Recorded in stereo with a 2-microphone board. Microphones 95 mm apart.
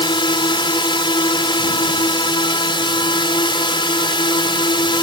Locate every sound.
0.0 s a drone: 60° left (ahead or behind)